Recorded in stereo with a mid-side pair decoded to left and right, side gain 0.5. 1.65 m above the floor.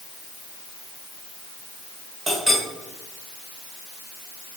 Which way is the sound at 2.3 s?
25° right.